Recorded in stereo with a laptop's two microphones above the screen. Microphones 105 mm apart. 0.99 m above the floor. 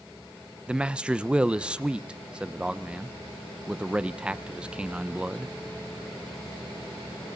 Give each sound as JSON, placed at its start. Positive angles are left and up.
{"t": 0.7, "sound": "a man speaking", "side_deg": -10, "distance_m": 0.6}